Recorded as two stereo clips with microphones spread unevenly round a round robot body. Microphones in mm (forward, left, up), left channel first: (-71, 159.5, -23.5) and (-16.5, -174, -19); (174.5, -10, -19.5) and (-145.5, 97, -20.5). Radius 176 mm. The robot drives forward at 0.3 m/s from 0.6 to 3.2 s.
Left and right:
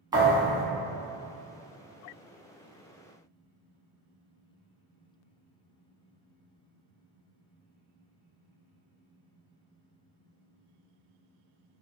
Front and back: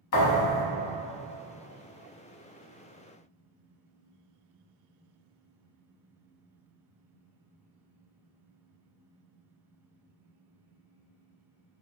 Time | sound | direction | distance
0.1 | a thud | 10° right | 0.8 m